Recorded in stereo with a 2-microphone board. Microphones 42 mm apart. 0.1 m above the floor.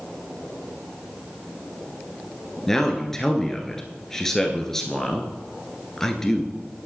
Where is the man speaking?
10° left (ahead or behind), 1.3 m.